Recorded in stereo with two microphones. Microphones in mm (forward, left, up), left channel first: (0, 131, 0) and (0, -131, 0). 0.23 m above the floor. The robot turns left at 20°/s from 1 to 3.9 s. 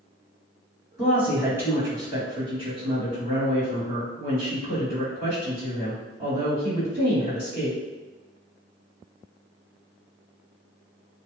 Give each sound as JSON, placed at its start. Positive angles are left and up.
{"t": 1.0, "sound": "a woman speaking", "azimuth_deg": -5, "distance_m": 1.6}